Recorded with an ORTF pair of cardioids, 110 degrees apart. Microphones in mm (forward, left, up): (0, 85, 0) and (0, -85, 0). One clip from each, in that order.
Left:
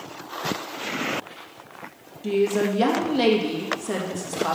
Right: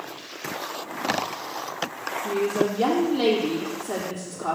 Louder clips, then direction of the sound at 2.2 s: Left 3 dB; 55° left.